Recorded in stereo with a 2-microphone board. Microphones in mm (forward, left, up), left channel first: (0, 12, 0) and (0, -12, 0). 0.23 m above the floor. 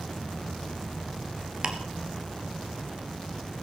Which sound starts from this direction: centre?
An insect, at 0.0 s.